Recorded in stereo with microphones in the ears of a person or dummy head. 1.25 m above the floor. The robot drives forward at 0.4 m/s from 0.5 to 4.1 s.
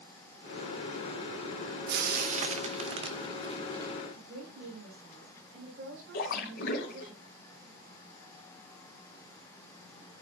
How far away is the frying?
About 0.6 m.